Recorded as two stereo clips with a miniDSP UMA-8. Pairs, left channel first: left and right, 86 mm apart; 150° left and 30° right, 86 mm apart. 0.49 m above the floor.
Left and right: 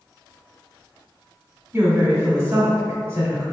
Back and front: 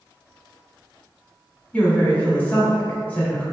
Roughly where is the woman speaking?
Behind right.